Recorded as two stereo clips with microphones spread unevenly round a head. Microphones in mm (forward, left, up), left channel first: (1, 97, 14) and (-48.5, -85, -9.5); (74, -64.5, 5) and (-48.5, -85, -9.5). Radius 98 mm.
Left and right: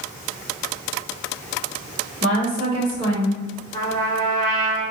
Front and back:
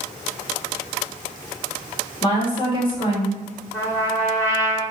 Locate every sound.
2.2 s a woman speaking: 40° right, 1.8 m
3.7 s a trumpet: 55° right, 1.5 m